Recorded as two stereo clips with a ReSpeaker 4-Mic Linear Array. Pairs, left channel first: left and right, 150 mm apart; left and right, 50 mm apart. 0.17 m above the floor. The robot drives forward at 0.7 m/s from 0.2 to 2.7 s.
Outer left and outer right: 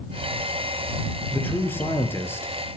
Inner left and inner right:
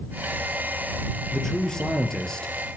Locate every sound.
1.3 s a man speaking: 15° left (ahead or behind), 4.5 m